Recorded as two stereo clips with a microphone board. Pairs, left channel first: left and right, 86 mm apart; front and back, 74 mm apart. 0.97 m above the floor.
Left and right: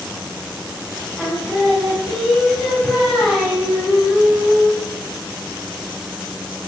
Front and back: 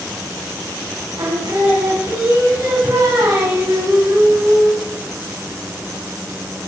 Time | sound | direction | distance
1.2 | singing | 165° left | 3.5 m